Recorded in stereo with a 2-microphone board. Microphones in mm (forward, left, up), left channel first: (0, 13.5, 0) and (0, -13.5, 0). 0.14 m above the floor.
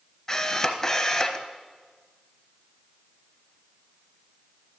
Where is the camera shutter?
10° left (ahead or behind), 0.9 m.